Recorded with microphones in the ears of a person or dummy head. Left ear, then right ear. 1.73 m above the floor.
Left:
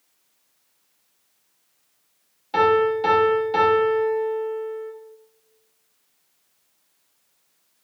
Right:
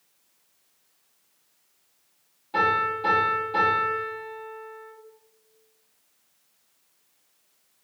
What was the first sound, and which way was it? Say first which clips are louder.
A piano: left 5 dB; 55° left (ahead or behind).